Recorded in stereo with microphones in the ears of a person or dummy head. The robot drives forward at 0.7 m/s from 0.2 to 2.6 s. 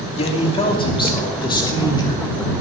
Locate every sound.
0.1 s a man speaking: 35° left (ahead or behind), 2.5 m; by 2.5 s 20° left (ahead or behind), 4 m